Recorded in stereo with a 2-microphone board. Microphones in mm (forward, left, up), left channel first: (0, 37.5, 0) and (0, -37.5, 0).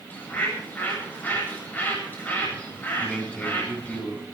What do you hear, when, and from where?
0.1 s a bird: 25° left (ahead or behind), 8.5 m
3.0 s a man speaking: 15° left (ahead or behind), 7 m